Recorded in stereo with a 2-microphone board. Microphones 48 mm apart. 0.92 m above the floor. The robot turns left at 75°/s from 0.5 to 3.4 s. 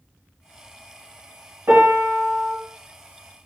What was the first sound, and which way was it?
A piano, 110° right.